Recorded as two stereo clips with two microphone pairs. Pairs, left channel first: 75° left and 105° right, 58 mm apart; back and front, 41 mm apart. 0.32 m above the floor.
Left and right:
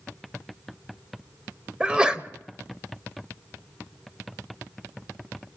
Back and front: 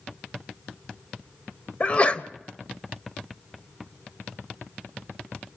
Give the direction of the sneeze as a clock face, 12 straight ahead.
5 o'clock.